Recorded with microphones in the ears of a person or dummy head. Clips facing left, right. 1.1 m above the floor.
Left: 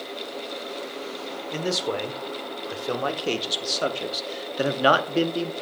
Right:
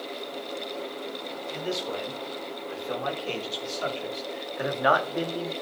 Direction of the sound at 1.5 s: 65° left (ahead or behind).